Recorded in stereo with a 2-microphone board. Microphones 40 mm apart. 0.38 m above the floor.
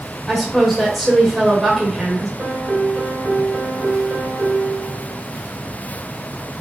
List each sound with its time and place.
0.3 s a woman speaking: centre (ahead or behind), 1.2 m
2.4 s a piano: 45° right (ahead or behind), 1.3 m